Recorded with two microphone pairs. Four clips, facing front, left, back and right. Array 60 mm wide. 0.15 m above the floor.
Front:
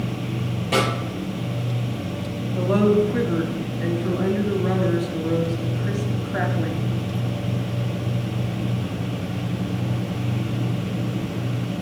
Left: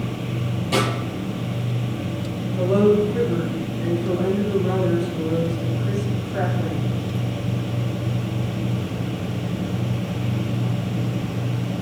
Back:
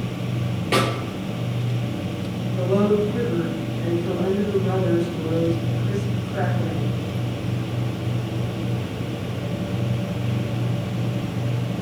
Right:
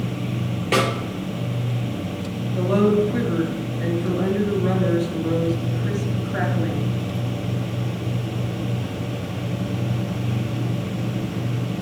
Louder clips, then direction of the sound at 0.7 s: Right 2 dB, even; 120° right.